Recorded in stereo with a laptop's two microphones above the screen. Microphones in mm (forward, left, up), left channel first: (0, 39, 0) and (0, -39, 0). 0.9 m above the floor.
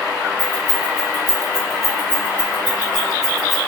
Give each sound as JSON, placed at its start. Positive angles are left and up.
{"t": 0.4, "sound": "keys jangling", "side_deg": -75, "distance_m": 1.1}